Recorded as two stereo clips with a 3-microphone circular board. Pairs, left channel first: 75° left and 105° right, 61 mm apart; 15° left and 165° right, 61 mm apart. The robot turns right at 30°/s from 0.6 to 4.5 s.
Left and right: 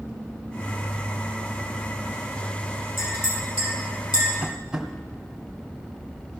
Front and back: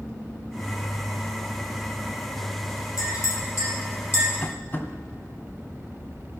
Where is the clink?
35° left, 6 m; by 4.3 s 70° left, 6 m.